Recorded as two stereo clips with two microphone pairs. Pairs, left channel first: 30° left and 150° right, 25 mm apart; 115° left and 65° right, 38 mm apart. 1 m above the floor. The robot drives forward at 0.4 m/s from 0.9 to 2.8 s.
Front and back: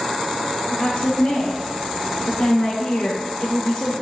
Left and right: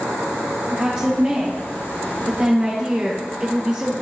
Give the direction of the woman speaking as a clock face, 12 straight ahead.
12 o'clock.